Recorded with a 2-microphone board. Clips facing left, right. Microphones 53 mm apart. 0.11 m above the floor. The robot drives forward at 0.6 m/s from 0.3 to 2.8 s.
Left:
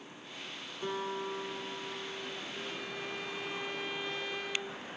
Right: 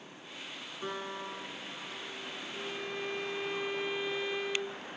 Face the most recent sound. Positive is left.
turn(degrees=-10)  # may be behind; listen again after turning